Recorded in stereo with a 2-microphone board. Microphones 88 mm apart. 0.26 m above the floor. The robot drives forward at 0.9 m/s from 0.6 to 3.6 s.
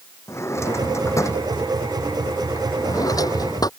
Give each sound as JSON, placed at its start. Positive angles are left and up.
{"t": 0.3, "sound": "a drawer", "side_deg": 30}